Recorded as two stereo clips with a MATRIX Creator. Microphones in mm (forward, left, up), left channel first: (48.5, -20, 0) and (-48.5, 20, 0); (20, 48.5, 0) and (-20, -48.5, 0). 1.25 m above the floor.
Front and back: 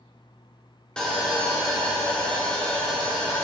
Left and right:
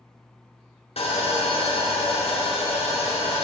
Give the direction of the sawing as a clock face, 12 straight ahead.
10 o'clock.